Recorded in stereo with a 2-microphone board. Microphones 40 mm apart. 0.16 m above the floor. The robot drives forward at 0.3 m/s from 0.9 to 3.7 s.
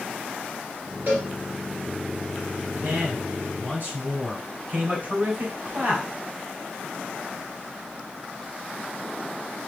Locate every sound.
1.1 s a cowbell: 55° right (ahead or behind), 3 m
2.8 s a man speaking: 55° right (ahead or behind), 3 m; by 6.0 s 50° right (ahead or behind), 3 m